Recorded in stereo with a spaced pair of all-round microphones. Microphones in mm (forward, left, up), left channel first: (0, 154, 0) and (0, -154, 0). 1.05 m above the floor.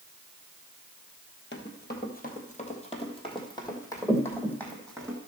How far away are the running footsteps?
About 1.4 m.